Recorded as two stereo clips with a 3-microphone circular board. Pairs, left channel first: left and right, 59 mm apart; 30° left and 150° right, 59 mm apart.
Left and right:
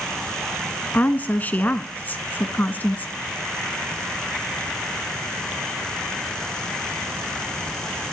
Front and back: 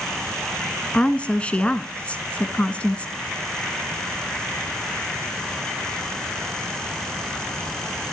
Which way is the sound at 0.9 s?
75° left.